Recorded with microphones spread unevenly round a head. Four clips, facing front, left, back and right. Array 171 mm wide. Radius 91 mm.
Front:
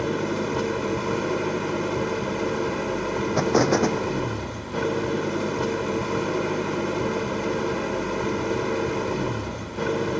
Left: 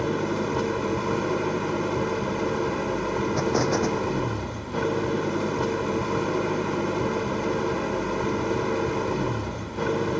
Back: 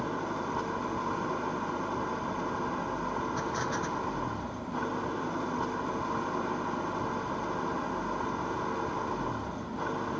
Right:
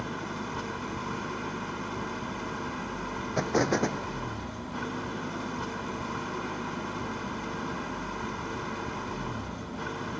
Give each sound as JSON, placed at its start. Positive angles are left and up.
{"t": 0.0, "sound": "an engine running", "azimuth_deg": 45}
{"t": 3.4, "sound": "an explosion", "azimuth_deg": -5}